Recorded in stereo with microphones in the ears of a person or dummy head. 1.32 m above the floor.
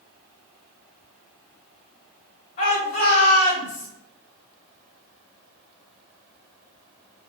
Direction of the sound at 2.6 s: 45° left (ahead or behind).